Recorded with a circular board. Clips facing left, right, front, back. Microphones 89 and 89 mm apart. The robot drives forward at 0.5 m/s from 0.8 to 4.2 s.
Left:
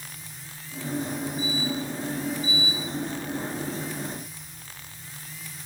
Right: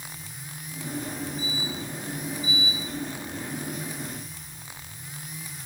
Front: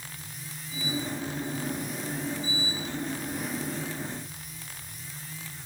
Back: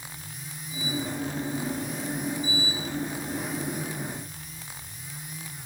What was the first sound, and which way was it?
Only background noise.